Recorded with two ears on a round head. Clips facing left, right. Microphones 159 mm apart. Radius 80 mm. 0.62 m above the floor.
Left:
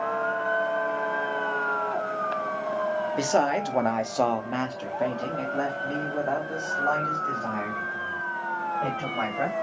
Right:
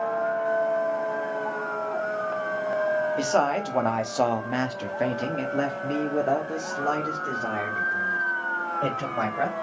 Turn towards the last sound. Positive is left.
turn(degrees=-35)  # may be behind; listen again after turning